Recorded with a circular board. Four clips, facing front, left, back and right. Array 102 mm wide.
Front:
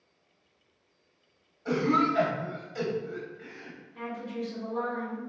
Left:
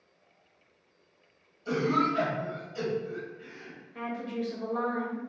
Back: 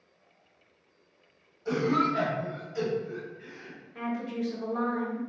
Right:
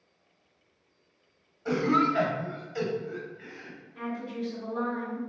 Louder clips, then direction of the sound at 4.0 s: Left 1 dB, back 3 dB; 135° left.